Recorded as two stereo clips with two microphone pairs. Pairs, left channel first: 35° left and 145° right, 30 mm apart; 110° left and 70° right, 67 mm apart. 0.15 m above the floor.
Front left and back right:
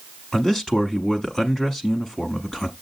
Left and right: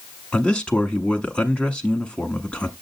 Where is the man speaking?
65° left, 1.1 m.